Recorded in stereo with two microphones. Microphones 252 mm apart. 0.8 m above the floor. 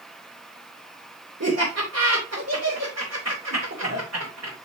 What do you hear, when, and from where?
1.4 s laughter: 75° right (ahead or behind), 3.5 m